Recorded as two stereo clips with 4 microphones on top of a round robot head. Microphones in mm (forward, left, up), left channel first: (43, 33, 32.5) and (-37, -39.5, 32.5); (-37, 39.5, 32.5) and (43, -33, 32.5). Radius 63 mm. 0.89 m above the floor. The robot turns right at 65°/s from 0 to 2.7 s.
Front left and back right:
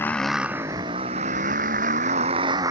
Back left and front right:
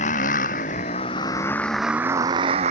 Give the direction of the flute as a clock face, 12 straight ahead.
I don't hear a flute.